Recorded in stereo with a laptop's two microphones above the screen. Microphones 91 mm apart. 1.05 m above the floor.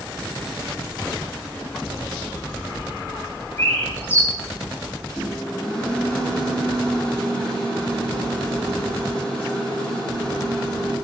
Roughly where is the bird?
Left.